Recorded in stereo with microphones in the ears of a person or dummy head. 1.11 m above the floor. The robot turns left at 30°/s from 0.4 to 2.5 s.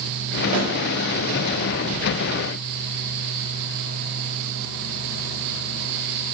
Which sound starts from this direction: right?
A snare drum, at 0.5 s.